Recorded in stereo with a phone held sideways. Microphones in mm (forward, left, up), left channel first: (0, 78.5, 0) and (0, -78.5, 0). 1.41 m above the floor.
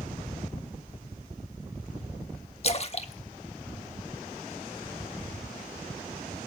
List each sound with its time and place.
2.6 s a splash: 40° left (ahead or behind), 1.2 m